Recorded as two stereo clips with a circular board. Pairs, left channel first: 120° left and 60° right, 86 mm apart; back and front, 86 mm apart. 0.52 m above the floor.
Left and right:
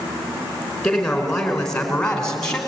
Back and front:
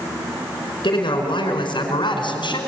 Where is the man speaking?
155° right, 5.5 m; by 2.6 s 160° right, 4 m.